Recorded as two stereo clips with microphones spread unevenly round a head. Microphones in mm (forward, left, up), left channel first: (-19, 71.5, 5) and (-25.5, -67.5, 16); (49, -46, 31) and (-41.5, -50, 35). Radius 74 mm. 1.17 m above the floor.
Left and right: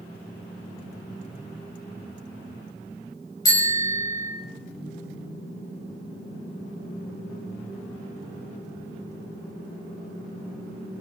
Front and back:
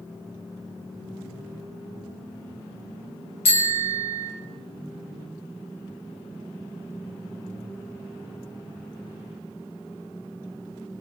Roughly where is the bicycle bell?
Ahead.